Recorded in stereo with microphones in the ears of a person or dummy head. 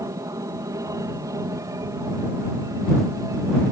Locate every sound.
0.0 s an aircraft: 10° right (ahead or behind)